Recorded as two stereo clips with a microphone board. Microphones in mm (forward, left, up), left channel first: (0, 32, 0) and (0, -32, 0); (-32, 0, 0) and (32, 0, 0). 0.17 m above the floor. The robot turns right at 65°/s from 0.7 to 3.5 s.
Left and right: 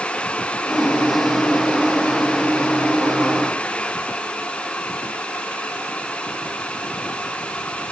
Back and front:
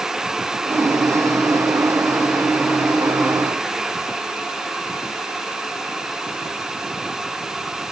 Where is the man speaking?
No man speaking in this recording.